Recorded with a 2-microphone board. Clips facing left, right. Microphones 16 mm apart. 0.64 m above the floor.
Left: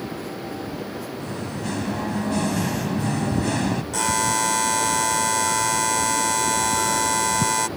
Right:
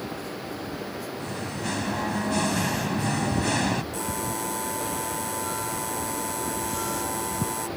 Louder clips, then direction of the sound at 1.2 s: Left 1 dB; 10° right (ahead or behind).